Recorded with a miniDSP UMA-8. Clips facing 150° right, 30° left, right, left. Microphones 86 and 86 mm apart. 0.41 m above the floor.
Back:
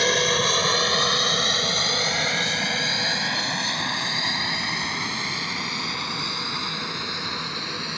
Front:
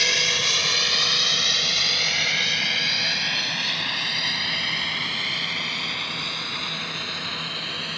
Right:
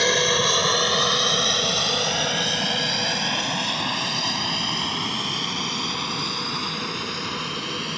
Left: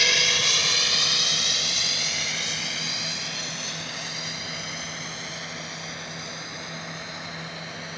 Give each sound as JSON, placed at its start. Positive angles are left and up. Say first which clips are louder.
{"t": 0.0, "sound": "an aircraft", "louder": "back 6 dB, right 7 dB", "azimuth_deg": -120}